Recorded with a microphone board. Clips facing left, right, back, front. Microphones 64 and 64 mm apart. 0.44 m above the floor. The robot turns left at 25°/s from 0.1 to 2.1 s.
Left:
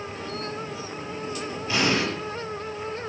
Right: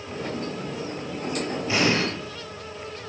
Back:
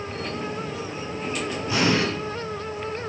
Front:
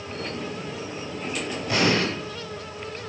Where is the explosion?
30° right, 9 m; by 2.0 s 40° right, 9 m.